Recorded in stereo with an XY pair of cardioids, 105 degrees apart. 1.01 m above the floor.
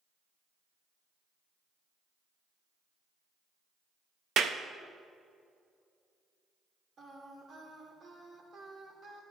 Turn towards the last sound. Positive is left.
turn(degrees=-55)